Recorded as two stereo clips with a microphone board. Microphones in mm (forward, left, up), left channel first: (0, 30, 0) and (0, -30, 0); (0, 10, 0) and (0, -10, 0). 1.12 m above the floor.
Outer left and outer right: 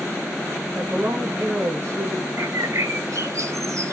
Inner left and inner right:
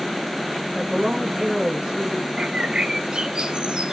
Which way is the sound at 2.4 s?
55° right (ahead or behind).